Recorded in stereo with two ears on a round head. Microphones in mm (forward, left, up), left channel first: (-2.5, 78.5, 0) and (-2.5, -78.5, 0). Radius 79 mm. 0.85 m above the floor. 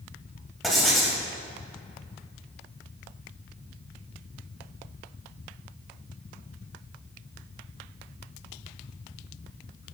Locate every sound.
0.6 s writing: centre (ahead or behind), 4 m